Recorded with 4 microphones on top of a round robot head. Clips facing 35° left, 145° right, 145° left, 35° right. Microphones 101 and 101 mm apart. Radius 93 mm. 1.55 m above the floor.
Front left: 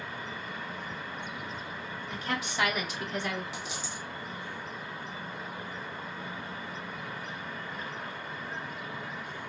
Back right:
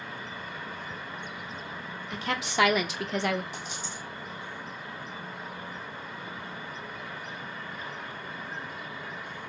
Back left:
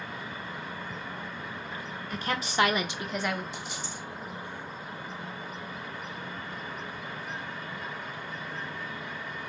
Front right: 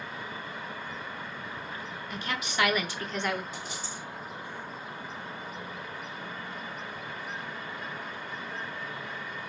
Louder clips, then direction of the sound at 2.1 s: Back right 4 dB, back left 4 dB; 165° right.